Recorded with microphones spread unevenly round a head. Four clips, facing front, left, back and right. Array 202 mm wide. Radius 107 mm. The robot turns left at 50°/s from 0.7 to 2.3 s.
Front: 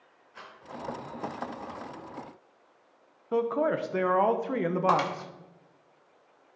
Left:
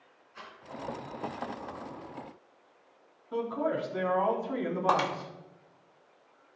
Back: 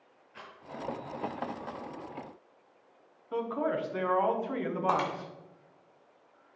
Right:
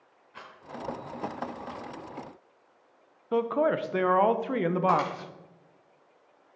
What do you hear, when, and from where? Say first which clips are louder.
0.3 s a rattle: right 1 dB, front 1 dB; 110° right, 2.5 m
3.3 s a man speaking: right 5 dB, front 5 dB; 55° right, 0.7 m
4.9 s breaking glass: even, front 3 dB; 40° left, 1.4 m